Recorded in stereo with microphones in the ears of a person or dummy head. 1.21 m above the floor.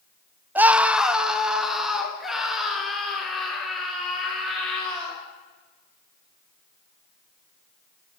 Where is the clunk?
I don't hear a clunk.